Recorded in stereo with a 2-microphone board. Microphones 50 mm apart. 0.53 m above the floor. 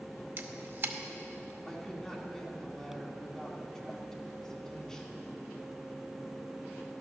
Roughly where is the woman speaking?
Centre.